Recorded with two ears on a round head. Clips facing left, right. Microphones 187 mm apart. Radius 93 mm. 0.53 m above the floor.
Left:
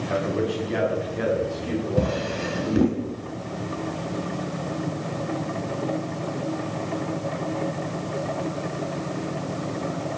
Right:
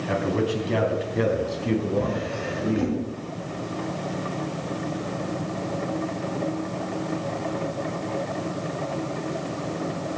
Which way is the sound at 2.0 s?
55° left (ahead or behind).